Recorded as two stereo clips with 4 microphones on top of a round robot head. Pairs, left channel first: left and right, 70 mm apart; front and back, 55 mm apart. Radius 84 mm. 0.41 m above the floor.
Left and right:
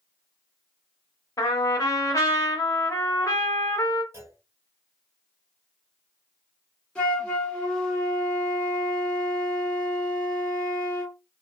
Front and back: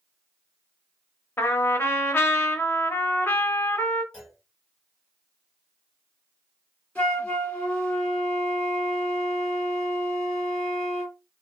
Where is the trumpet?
45° left, 0.7 m.